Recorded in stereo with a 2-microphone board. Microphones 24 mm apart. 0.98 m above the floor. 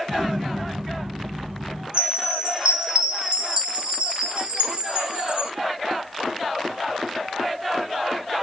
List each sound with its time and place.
0.1 s an explosion: 35° right (ahead or behind), 1.2 m
1.9 s a chime: 45° right (ahead or behind), 0.9 m